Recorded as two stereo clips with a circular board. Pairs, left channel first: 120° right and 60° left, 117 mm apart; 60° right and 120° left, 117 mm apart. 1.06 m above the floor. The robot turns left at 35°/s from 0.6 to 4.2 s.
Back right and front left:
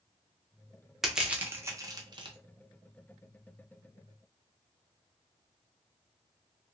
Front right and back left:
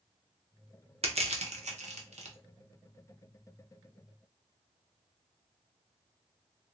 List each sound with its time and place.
1.0 s crushing: 150° left, 0.6 m; by 2.4 s 100° left, 0.6 m